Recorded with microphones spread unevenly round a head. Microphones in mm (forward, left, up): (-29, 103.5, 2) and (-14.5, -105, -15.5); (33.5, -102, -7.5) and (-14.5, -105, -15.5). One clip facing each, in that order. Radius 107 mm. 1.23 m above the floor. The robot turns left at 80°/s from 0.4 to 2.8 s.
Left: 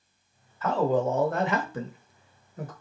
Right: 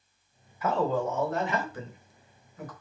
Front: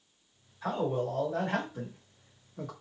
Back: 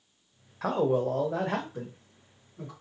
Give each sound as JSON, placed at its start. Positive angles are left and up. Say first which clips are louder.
{"t": 0.6, "sound": "a man speaking", "louder": "left 3 dB, back 5 dB", "azimuth_deg": -165, "distance_m": 0.8}